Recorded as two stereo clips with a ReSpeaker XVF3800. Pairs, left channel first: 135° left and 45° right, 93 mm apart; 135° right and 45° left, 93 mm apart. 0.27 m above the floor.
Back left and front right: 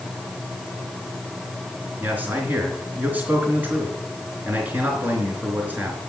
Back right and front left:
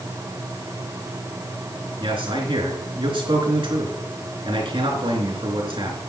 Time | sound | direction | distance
2.0 | a man speaking | 25° left | 3.5 m